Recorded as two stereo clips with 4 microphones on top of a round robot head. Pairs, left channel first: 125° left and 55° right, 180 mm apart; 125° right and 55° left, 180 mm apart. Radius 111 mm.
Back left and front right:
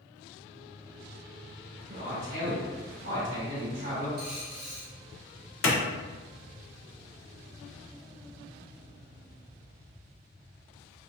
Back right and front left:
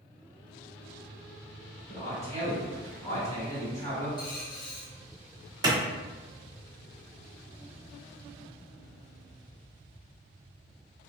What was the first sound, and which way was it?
A man speaking, 55° right.